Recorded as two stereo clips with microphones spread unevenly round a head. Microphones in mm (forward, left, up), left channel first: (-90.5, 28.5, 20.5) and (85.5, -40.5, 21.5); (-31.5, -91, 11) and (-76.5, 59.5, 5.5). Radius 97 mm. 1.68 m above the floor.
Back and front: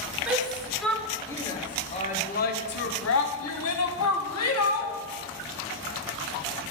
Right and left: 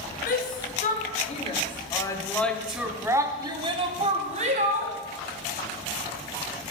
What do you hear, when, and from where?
0.3 s a shout: 105° right, 1.7 m; by 5.0 s 150° left, 1.9 m